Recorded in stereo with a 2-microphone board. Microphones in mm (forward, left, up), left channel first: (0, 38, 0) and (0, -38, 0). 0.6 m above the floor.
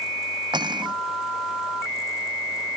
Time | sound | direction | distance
0.5 | cutlery clinking | 70° right (ahead or behind) | ?